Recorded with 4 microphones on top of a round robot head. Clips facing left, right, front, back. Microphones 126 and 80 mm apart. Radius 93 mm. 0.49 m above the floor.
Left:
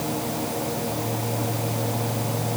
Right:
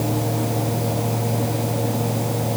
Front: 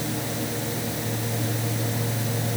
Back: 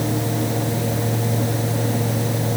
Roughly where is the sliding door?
No sliding door in this recording.